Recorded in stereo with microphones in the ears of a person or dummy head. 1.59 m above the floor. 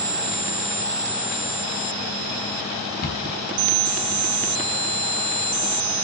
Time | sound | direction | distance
3.0 | a cupboard door | 55° left (ahead or behind) | 3 m